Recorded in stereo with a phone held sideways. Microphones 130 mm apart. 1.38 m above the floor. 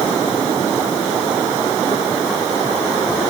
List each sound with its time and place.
Only background noise.